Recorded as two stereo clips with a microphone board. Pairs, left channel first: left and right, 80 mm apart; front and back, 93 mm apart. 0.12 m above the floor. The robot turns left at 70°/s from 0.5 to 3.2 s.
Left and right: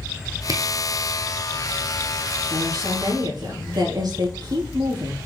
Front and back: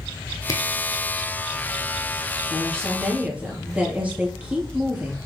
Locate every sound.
0.5 s a camera shutter: 50° right, 1.2 m; by 0.6 s 55° right, 1.2 m
2.5 s a woman speaking: 55° right, 3 m; by 5.2 s 105° right, 3 m